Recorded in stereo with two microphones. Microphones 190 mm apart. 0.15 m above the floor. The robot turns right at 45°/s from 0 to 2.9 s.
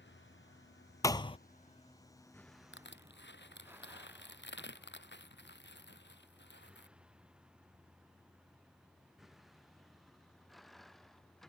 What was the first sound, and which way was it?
A vehicle, 70° left (ahead or behind).